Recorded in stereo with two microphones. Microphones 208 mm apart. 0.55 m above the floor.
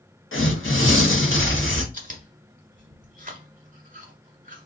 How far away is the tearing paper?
About 1.0 m.